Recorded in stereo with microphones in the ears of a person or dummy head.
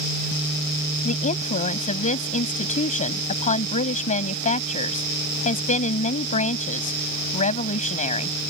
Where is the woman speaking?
40° left (ahead or behind).